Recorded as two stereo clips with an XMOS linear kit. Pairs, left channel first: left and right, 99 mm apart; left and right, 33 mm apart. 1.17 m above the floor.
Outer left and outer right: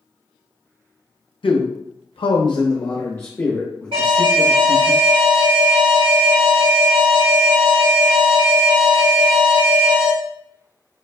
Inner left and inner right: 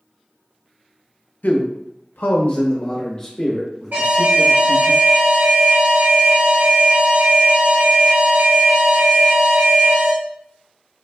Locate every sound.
1.4 s a man speaking: 65° left (ahead or behind), 0.6 m; by 4.9 s 5° left (ahead or behind), 1.7 m
3.9 s an alarm: 80° right, 1.7 m